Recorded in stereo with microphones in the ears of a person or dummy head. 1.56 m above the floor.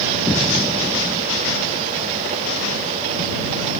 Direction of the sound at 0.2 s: 10° left (ahead or behind).